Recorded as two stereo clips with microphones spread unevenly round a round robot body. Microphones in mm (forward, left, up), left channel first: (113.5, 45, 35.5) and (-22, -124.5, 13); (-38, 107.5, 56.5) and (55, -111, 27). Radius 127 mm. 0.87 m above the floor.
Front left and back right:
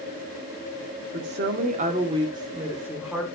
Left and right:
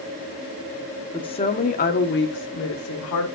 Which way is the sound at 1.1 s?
175° right.